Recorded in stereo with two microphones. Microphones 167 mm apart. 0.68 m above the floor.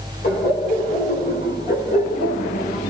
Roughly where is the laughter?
Left.